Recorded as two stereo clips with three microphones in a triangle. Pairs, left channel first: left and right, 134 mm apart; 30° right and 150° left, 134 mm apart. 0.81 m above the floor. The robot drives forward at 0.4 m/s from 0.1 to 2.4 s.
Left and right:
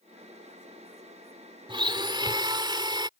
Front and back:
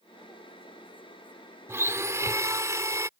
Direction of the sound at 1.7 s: 140° right.